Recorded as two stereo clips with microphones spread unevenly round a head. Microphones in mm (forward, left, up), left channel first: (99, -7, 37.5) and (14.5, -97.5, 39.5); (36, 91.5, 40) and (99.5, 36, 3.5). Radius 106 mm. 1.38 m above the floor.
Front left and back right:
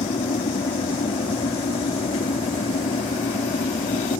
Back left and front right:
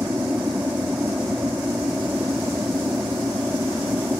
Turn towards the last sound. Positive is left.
turn(degrees=25)